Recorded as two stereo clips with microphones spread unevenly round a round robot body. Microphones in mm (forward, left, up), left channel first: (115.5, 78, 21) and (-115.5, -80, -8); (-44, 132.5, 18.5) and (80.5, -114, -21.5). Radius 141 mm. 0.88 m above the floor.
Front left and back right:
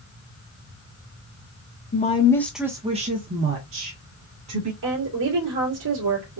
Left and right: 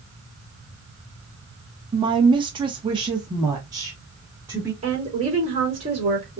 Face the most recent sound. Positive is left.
turn(degrees=-130)